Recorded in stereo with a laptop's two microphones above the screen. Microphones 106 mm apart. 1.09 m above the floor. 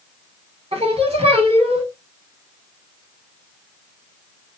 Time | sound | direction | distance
0.7 | singing | 60° right (ahead or behind) | 1.1 m